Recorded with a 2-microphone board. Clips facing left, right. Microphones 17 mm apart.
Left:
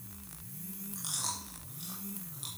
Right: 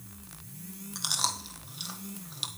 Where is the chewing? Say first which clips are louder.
Right 8 dB; 70° right (ahead or behind), 1.4 m.